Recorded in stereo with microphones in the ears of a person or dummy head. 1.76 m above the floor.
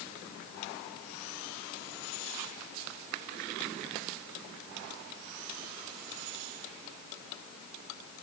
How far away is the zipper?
No zipper in this recording.